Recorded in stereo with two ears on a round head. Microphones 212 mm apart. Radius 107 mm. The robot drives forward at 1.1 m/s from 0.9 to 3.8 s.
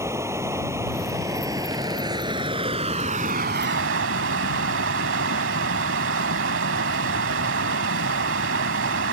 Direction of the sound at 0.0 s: 15° right (ahead or behind).